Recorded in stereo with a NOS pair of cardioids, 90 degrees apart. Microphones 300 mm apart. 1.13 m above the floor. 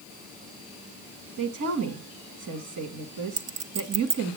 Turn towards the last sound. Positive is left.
turn(degrees=-55)